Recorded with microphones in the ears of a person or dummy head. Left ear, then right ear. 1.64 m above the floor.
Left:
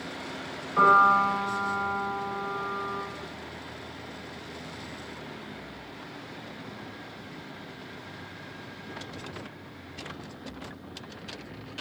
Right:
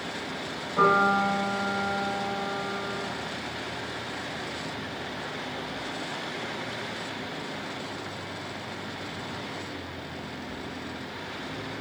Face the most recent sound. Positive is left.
turn(degrees=75)  # may be behind; listen again after turning